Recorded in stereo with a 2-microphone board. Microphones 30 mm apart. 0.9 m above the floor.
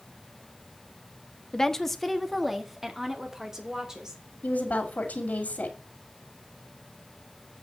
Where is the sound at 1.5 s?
20° left (ahead or behind), 0.9 m; by 4.2 s 20° right (ahead or behind), 3 m.